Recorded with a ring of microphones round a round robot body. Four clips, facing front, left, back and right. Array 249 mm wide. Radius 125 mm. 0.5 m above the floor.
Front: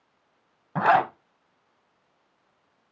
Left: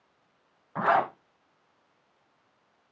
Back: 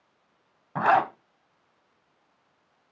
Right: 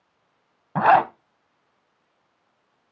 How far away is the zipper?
About 1.1 m.